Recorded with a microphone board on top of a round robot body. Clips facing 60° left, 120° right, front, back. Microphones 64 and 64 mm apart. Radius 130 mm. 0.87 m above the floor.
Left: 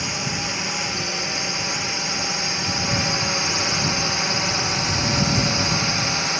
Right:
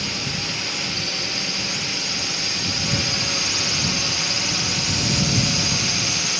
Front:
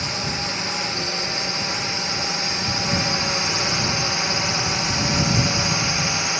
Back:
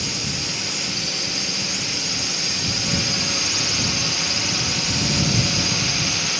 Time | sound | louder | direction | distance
0.0 | a drone | left 2 dB, front 2 dB | 5° left | ?